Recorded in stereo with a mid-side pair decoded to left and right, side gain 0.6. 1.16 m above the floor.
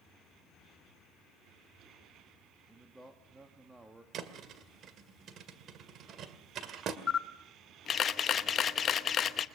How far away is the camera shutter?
About 0.9 m.